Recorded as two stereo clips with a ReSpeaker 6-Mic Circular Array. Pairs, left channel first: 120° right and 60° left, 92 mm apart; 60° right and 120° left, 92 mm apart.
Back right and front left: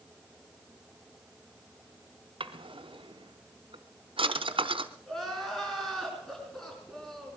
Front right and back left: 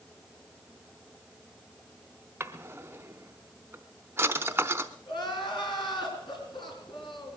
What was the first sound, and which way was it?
A drawer, 55° left.